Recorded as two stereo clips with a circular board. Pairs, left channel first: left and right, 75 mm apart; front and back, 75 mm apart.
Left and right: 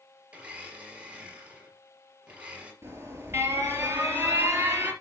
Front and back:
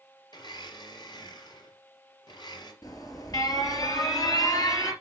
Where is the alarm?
35° right, 4 m.